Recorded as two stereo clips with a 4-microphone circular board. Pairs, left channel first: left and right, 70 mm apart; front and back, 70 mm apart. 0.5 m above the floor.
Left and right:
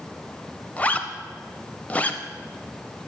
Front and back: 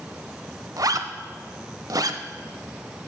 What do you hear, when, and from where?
0.8 s a zipper: 160° left, 0.5 m